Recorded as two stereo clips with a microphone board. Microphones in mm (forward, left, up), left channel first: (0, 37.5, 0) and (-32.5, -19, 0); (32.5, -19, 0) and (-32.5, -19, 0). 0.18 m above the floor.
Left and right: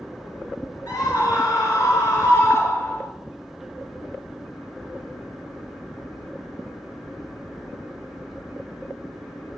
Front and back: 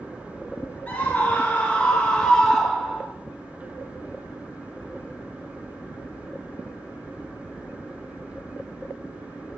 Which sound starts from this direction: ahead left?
A scream, at 0.9 s.